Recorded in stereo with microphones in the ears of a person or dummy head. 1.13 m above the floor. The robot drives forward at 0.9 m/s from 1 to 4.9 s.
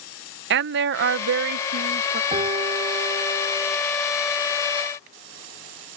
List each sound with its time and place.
0.5 s a woman speaking: 55° right (ahead or behind); by 2.2 s 30° right (ahead or behind)
2.3 s a piano: 25° right (ahead or behind)